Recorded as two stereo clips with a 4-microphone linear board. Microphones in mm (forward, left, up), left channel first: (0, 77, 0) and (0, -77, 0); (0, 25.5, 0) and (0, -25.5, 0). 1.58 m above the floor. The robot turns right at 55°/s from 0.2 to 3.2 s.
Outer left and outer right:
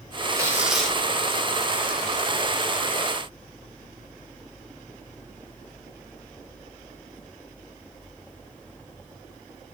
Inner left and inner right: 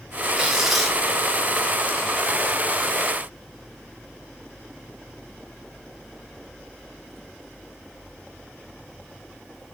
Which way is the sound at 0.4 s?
25° right.